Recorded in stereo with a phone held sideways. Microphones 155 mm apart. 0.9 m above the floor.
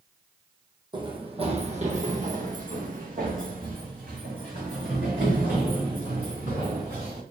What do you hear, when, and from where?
0.9 s running footsteps: 30° right (ahead or behind), 1.3 m; by 7.2 s 65° right (ahead or behind), 4 m